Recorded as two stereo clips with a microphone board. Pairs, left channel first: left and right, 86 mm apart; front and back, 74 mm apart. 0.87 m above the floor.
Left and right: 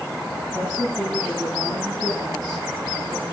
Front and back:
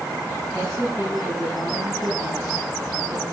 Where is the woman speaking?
130° right, 7 m.